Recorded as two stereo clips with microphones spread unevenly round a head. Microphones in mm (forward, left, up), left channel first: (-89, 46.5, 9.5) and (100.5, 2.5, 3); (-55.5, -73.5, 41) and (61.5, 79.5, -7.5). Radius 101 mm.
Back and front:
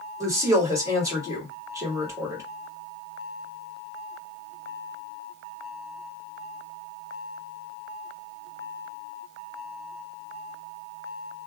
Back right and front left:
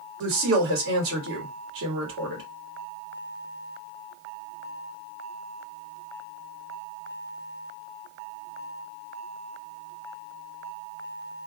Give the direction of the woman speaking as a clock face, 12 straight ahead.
10 o'clock.